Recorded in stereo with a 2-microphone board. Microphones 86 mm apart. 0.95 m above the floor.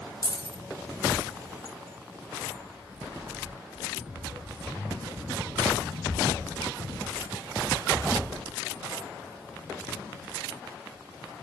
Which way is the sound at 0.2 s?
60° right (ahead or behind).